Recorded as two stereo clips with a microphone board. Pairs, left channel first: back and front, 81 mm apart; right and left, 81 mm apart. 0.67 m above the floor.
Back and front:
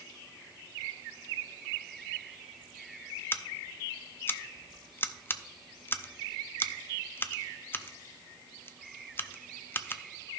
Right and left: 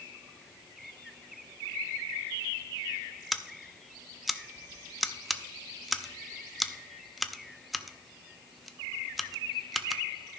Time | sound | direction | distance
3.3 | scissors | straight behind | 0.5 m